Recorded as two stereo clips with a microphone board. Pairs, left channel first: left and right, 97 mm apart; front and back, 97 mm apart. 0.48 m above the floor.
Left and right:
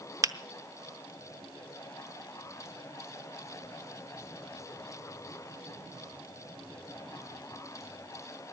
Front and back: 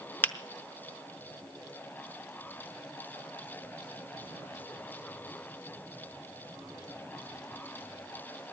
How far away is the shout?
I don't hear a shout.